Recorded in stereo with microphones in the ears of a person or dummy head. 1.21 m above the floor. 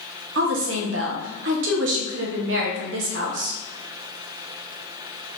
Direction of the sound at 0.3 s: 55° right (ahead or behind).